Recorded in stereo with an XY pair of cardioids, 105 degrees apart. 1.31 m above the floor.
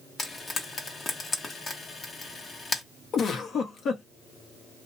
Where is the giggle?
55° left, 0.9 m.